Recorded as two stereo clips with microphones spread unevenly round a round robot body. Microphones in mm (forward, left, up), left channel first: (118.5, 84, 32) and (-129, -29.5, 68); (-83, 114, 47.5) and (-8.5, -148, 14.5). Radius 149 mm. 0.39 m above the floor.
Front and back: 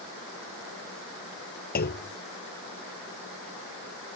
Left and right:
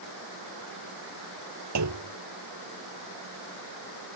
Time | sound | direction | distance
1.8 | a clunk | 35° right | ?